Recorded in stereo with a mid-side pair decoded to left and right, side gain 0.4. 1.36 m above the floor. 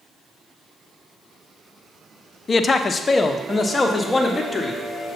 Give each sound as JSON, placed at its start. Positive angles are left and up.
{"t": 2.5, "sound": "a man speaking", "azimuth_deg": 40, "distance_m": 0.7}